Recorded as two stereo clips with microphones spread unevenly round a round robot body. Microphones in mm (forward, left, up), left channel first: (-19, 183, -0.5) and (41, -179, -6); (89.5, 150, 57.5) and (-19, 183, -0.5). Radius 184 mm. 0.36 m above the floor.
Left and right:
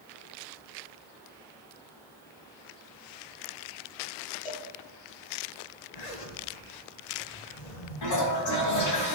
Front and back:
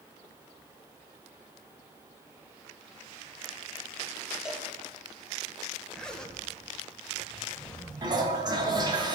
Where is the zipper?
80° left, 2 m.